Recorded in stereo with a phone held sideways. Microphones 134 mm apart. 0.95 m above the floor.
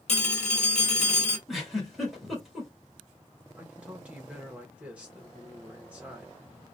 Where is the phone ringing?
50° left (ahead or behind), 1.2 m.